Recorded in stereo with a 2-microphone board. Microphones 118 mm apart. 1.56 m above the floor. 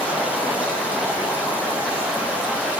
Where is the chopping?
No chopping in this recording.